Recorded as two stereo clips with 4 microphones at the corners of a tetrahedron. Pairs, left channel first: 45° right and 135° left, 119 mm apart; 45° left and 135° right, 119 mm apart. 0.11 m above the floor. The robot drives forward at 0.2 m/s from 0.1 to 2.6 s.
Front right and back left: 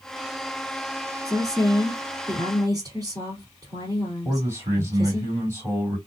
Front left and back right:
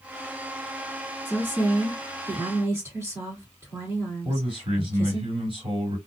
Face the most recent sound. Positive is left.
turn(degrees=-160)